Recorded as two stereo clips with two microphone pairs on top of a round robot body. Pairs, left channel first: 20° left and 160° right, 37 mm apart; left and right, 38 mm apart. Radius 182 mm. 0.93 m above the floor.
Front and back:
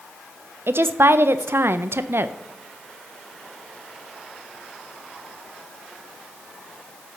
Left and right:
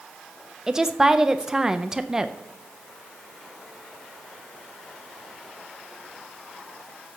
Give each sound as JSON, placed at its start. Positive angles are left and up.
{"t": 0.7, "sound": "a woman speaking", "azimuth_deg": -165, "distance_m": 0.6}